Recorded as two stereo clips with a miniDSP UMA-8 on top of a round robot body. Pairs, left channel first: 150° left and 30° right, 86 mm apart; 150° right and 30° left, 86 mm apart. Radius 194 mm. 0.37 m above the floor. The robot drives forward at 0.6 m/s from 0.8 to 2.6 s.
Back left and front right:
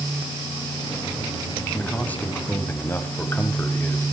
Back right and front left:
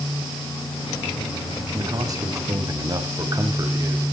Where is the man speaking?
75° left, 3.5 m; by 4.0 s 80° left, 3.5 m.